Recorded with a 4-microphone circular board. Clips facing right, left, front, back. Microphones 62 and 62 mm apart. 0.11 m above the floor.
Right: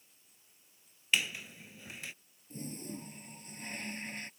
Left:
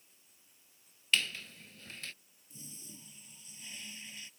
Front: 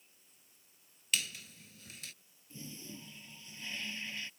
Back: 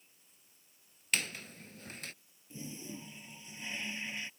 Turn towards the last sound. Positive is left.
turn(degrees=-115)